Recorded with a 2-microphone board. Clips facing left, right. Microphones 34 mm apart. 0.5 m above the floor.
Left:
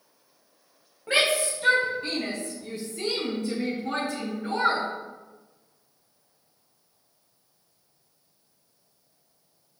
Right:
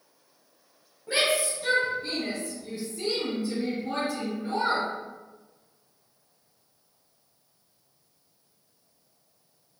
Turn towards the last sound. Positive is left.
turn(degrees=75)  # may be behind; listen again after turning